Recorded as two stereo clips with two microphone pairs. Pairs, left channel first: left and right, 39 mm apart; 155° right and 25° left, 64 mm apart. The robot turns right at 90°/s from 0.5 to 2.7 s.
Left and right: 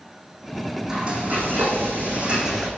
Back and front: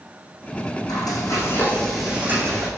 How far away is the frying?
About 4.5 m.